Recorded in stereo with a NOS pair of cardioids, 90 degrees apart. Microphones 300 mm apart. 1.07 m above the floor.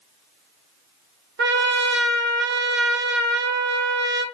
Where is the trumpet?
35° right, 0.6 m.